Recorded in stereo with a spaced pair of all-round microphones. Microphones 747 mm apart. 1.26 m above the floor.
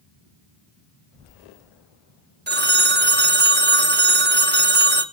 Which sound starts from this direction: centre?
A phone ringing, at 2.5 s.